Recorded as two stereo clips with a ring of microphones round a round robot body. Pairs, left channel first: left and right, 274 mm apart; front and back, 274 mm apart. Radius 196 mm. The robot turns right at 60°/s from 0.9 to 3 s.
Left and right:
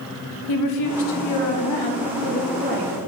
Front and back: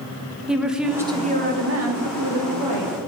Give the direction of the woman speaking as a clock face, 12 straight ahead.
9 o'clock.